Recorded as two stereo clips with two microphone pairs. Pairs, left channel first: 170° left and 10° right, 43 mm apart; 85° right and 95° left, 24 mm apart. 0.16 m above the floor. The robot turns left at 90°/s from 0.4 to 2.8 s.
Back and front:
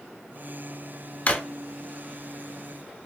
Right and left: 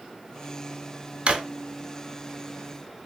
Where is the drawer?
130° left, 0.5 m; by 1.4 s 115° left, 0.5 m.